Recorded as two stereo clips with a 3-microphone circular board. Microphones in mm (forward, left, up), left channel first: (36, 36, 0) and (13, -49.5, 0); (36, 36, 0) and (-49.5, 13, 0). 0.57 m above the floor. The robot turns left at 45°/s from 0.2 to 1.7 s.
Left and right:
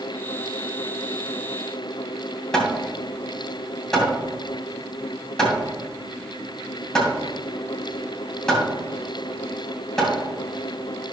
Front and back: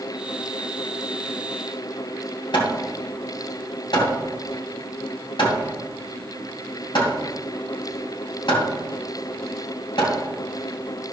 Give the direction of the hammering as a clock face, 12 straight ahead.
12 o'clock.